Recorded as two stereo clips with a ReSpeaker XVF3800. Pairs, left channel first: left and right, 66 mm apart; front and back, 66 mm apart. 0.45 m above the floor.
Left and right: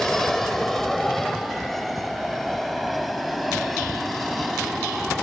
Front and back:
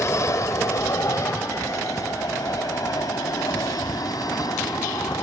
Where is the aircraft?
5° left; by 5.2 s straight ahead.